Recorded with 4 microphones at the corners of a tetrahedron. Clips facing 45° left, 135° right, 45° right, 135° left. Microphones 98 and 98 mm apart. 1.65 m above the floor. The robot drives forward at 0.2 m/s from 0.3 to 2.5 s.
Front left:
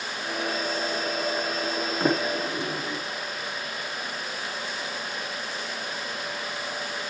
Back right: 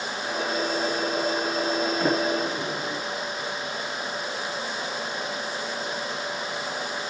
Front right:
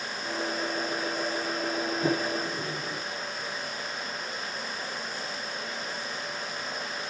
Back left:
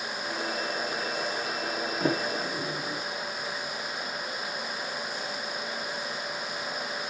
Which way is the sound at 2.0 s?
120° left.